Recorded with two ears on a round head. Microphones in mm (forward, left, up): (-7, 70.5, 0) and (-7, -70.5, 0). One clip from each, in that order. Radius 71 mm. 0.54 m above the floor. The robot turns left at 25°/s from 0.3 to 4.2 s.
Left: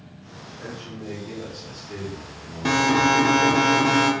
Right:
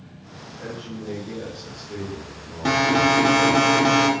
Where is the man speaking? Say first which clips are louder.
Right 2 dB; 110° left, 1.7 m; by 3.6 s 35° left, 1.7 m.